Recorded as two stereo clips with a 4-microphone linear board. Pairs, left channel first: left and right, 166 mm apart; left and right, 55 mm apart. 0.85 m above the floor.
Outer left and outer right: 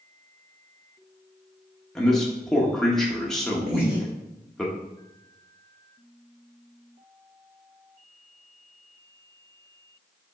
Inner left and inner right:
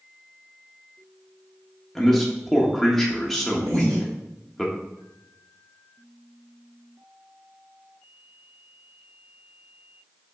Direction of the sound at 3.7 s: 75° right (ahead or behind).